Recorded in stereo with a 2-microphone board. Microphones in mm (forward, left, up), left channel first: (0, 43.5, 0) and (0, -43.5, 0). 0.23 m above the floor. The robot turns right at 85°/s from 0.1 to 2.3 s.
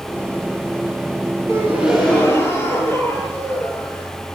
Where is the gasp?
40° right, 6 m; by 4.1 s 30° left, 6 m.